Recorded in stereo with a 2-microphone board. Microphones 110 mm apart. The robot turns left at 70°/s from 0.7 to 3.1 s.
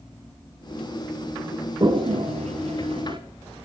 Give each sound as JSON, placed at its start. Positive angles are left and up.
{"t": 1.8, "sound": "a toilet flushing", "side_deg": -40, "distance_m": 0.9}